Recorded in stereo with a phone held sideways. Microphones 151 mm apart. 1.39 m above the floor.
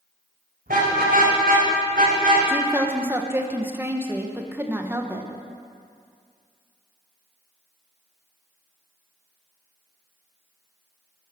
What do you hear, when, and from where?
0.7 s a car horn: 75° right (ahead or behind), 4 m; by 2.4 s 65° right (ahead or behind), 3.5 m
2.5 s a woman speaking: 15° right (ahead or behind), 1.3 m